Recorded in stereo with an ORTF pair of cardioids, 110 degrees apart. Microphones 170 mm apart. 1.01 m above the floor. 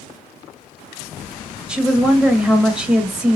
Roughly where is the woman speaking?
Ahead.